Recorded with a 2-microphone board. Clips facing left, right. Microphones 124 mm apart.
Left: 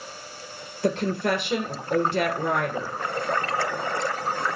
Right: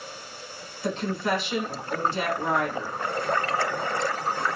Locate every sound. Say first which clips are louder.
0.8 s a woman speaking: left 3 dB; 60° left (ahead or behind), 2.5 m